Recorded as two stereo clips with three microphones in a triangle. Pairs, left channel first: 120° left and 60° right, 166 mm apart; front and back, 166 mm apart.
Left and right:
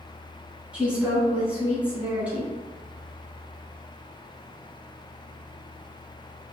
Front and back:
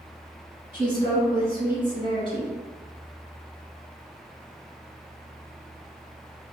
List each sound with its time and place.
0.7 s a woman speaking: 15° left, 1.2 m